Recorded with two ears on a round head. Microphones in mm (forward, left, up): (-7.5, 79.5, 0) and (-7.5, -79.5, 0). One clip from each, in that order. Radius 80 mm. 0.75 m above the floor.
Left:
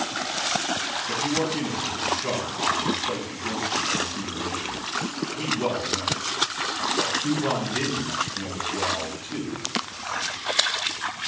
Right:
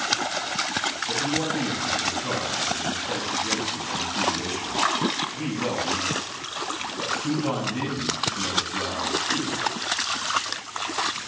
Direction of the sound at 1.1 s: 65° left (ahead or behind).